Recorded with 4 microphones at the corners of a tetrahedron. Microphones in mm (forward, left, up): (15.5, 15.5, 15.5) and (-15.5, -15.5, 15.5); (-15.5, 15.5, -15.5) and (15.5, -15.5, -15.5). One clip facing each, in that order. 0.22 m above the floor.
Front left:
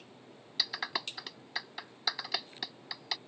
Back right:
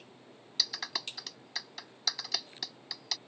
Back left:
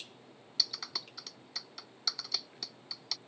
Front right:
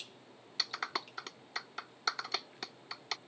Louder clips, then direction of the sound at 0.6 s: Front left 2 dB, front right 3 dB; 15° right.